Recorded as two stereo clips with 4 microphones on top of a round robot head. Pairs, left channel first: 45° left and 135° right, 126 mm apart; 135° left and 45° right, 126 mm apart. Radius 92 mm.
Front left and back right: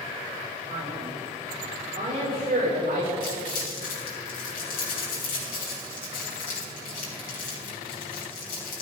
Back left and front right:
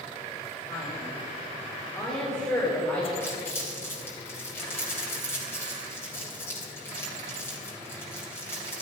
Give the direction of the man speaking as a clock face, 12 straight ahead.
6 o'clock.